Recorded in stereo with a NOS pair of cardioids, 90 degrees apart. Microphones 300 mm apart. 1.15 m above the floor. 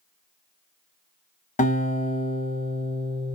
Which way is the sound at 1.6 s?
25° left.